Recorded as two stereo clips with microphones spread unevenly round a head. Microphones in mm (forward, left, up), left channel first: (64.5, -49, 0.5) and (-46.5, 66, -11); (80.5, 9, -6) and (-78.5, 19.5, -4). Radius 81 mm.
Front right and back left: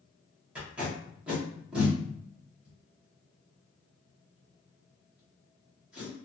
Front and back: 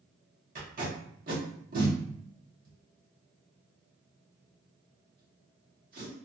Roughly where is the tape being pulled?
Behind right.